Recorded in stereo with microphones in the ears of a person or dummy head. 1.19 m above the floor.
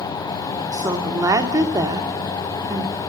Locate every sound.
0.7 s a woman speaking: 25° right (ahead or behind), 2.5 m